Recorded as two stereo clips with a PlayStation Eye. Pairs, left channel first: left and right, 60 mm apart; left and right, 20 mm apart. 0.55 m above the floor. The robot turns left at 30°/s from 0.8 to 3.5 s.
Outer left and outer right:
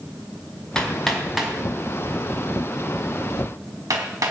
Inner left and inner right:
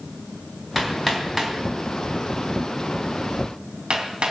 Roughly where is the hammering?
Centre.